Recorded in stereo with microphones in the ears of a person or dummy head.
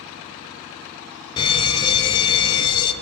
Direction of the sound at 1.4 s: 25° left (ahead or behind).